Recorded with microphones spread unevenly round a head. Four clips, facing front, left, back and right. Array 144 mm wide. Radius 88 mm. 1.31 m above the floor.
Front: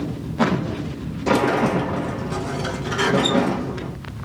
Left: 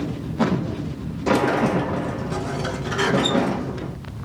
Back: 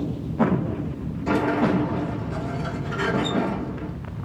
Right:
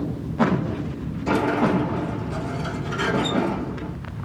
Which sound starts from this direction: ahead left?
A sliding door, at 1.3 s.